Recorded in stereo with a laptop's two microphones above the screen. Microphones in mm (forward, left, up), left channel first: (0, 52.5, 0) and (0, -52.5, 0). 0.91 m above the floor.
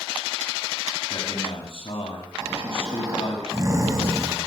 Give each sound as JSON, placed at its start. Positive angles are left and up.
{"t": 1.1, "sound": "a man speaking", "side_deg": 60, "distance_m": 7.0}
{"t": 2.4, "sound": "snoring", "side_deg": -30, "distance_m": 7.0}